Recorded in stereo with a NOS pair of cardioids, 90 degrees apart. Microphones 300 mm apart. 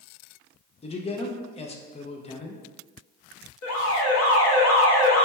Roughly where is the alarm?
Ahead left.